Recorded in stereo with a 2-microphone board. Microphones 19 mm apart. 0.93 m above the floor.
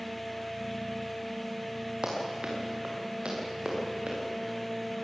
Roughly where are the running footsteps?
Right.